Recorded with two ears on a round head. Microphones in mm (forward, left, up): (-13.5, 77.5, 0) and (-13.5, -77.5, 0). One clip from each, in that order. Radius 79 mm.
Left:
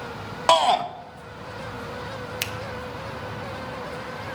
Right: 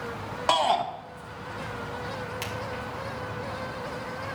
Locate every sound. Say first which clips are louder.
0.5 s a shout: left 5 dB; 25° left (ahead or behind), 1.0 m
2.4 s a finger snap: left 8 dB; 50° left (ahead or behind), 0.8 m